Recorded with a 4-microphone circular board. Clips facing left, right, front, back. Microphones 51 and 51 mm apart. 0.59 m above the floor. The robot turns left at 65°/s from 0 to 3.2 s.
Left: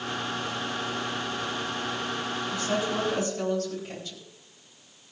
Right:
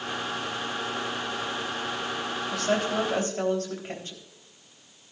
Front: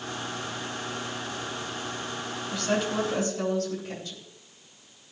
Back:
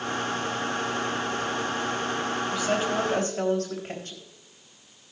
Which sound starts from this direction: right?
A woman speaking, at 2.5 s.